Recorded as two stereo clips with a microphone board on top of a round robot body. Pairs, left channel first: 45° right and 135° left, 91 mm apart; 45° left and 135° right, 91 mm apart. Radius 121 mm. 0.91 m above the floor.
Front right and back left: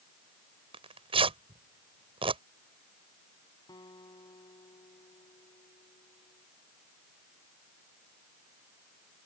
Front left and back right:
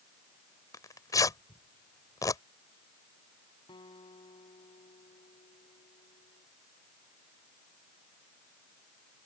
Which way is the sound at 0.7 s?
105° left.